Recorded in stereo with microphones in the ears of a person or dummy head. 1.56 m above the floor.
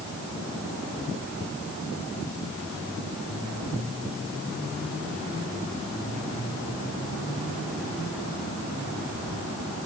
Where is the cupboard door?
I don't hear a cupboard door.